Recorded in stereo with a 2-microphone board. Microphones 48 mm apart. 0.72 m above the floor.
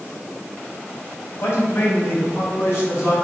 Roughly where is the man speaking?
Left.